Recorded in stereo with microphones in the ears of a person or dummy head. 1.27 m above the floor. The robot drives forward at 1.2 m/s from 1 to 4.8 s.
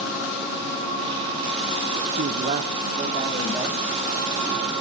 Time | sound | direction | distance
2.1 | a man speaking | 55° right (ahead or behind) | 0.8 m